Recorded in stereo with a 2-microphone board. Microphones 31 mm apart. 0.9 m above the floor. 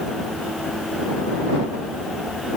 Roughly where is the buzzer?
I don't hear a buzzer.